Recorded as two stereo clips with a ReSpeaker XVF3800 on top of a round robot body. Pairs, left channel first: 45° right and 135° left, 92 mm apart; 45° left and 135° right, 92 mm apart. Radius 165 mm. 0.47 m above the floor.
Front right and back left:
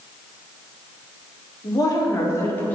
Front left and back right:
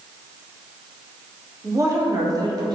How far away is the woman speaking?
About 2 m.